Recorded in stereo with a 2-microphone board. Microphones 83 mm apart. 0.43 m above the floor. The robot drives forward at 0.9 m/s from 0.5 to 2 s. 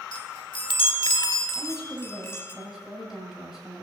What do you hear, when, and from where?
0.1 s a chime: 65° left (ahead or behind), 0.7 m; by 2.5 s 30° left (ahead or behind), 1.3 m
1.6 s a woman speaking: 5° right (ahead or behind), 2.5 m